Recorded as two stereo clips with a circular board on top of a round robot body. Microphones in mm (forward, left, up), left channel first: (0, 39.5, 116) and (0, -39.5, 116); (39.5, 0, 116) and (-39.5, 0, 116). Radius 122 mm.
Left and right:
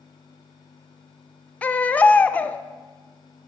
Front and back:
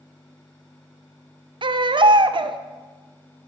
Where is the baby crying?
160° left, 0.7 m.